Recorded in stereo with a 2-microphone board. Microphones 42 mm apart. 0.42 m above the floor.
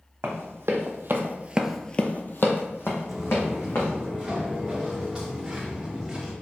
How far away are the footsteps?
About 1.0 m.